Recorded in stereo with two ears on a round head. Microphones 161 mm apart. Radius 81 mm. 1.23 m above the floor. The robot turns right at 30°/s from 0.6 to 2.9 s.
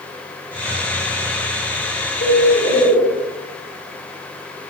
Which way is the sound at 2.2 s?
80° left.